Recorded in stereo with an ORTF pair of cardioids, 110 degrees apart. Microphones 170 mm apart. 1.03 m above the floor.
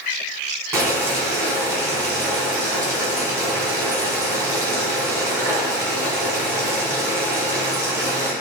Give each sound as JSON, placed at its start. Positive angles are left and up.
{"t": 0.7, "sound": "boiling", "azimuth_deg": -15, "distance_m": 1.5}